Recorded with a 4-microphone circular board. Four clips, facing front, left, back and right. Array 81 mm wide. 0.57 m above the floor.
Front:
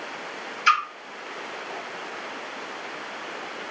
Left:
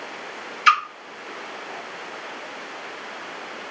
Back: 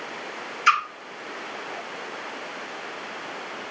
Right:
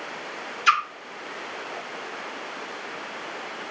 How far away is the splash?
About 1.8 m.